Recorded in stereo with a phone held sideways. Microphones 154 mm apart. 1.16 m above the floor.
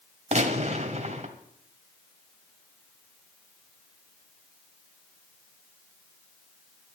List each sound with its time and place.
0.3 s a gunshot: 45° right (ahead or behind), 1.6 m